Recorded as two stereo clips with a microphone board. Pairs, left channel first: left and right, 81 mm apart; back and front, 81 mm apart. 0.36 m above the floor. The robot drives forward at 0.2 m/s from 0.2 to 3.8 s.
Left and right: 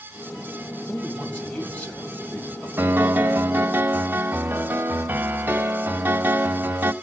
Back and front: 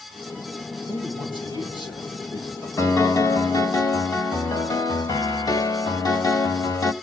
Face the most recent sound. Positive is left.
turn(degrees=-155)